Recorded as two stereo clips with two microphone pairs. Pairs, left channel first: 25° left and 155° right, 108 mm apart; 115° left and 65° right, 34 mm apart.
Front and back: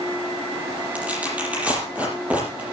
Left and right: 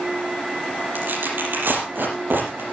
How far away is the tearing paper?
About 6 m.